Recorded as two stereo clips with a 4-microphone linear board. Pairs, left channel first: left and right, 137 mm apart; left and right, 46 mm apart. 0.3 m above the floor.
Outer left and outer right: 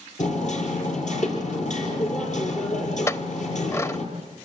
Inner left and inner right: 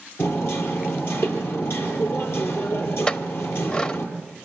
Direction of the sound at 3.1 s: 20° left (ahead or behind).